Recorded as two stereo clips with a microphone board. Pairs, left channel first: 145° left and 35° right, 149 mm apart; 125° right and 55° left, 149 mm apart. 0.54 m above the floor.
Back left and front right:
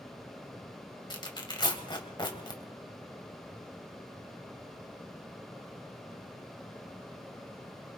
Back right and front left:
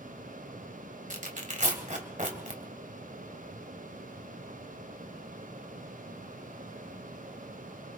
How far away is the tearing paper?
About 1.7 m.